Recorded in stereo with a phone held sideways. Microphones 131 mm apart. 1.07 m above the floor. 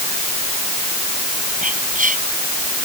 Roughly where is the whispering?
Right.